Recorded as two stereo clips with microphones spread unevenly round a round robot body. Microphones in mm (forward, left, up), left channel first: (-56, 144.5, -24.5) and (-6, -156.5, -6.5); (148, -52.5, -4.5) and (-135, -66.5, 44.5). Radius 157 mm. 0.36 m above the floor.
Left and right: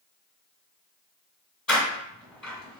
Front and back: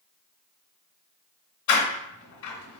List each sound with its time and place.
1.7 s a door slam: 10° left, 1.6 m